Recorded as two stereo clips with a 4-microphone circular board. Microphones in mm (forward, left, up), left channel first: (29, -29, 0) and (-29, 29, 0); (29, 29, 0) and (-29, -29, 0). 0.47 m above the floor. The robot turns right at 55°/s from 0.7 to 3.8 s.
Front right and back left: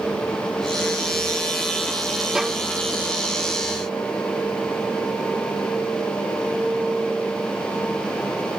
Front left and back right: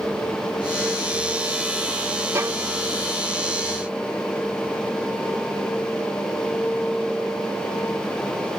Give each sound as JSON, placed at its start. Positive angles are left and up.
{"t": 2.4, "sound": "a violin", "azimuth_deg": -150}